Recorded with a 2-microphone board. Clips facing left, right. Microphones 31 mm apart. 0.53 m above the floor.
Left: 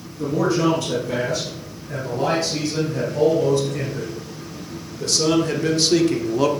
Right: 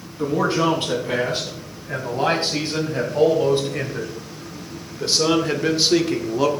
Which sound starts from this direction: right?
A man speaking, at 0.2 s.